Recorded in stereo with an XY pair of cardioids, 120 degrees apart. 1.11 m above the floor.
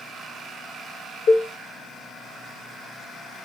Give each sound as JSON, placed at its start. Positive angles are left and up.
{"t": 1.3, "sound": "a cowbell", "azimuth_deg": 65, "distance_m": 0.7}